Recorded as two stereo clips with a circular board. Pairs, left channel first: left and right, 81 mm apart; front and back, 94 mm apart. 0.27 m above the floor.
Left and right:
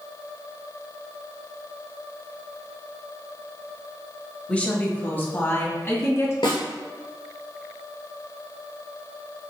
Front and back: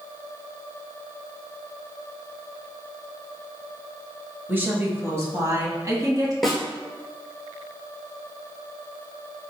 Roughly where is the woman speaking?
Behind left.